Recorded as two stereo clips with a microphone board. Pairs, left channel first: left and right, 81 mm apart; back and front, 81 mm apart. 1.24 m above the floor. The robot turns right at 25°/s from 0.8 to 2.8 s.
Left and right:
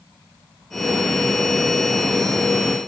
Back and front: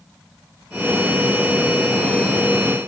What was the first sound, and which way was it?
Only background noise.